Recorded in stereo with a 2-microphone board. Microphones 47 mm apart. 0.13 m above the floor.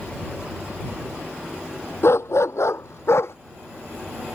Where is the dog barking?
65° left (ahead or behind).